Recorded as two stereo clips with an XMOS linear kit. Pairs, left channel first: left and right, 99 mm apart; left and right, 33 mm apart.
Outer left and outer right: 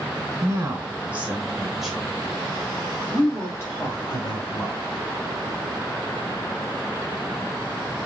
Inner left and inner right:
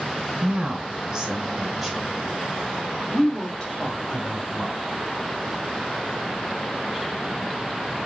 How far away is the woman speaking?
About 1.7 m.